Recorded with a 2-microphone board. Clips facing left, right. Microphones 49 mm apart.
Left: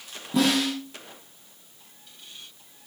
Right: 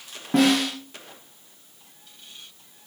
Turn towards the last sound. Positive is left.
turn(degrees=-55)  # may be behind; listen again after turning